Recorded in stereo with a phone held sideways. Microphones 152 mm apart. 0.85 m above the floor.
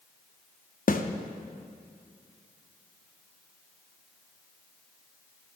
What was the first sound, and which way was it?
A snare drum, 65° left (ahead or behind).